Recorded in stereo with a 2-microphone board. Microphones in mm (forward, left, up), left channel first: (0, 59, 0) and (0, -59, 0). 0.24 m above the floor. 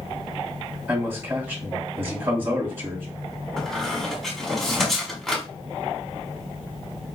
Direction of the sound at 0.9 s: 15° right (ahead or behind).